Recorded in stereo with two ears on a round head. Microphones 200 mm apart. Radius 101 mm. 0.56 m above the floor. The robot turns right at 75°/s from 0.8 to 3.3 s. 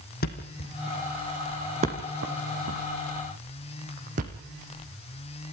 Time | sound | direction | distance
0.2 | a thud | 45° left (ahead or behind) | 3.5 m